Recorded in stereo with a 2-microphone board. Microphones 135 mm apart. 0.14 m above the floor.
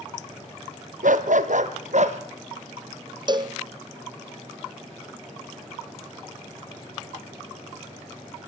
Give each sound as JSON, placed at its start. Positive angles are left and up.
{"t": 1.0, "sound": "a dog barking", "side_deg": -75, "distance_m": 1.3}
{"t": 3.3, "sound": "a cowbell", "side_deg": -35, "distance_m": 0.9}